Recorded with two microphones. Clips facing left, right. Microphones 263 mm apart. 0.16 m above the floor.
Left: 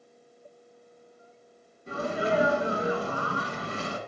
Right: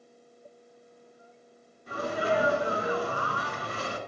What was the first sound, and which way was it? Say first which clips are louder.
A sneeze: left 1 dB; 25° left (ahead or behind).